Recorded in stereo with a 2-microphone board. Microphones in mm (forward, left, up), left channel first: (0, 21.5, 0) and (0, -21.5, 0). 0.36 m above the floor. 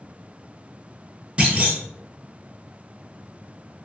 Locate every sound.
1.4 s a clunk: 30° right (ahead or behind), 0.9 m